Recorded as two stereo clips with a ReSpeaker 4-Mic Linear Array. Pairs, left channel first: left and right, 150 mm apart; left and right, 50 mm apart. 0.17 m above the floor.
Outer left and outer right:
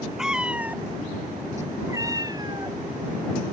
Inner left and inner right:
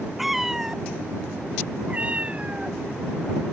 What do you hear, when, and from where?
0.2 s a cat meowing: 5° right (ahead or behind); by 2.8 s 30° right (ahead or behind)